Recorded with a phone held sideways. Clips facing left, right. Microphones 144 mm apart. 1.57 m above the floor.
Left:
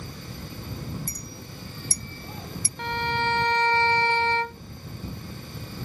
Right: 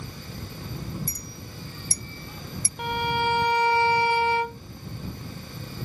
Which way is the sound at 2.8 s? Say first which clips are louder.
Right 2 dB; 10° right (ahead or behind).